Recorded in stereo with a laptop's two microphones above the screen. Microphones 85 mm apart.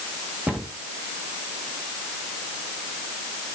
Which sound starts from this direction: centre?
A cupboard door, at 0.5 s.